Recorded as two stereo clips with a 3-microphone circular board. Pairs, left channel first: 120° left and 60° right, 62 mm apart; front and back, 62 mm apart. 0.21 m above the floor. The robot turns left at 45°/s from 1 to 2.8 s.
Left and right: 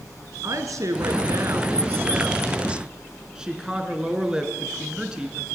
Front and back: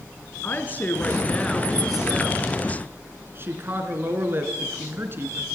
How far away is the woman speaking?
About 3 m.